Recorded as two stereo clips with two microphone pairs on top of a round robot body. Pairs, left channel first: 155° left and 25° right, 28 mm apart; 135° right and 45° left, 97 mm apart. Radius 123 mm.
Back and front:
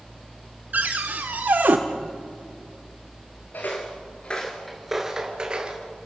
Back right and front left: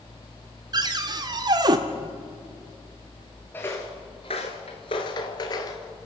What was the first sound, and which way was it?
A cupboard door, straight ahead.